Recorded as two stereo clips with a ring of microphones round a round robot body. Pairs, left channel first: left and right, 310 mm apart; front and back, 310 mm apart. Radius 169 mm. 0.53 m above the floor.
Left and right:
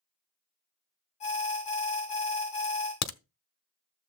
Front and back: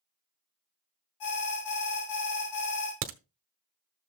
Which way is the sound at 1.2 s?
20° left.